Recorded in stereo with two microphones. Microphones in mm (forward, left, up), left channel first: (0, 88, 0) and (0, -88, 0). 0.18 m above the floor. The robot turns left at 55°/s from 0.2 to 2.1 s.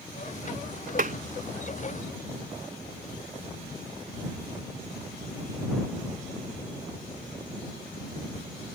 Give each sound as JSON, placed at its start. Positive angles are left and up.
{"t": 1.0, "sound": "tapping", "side_deg": -55}